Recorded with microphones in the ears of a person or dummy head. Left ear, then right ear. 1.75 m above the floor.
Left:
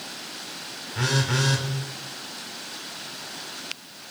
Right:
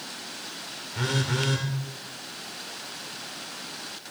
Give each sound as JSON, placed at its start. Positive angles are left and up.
{"t": 0.9, "sound": "a phone buzzing", "side_deg": 15, "distance_m": 0.9}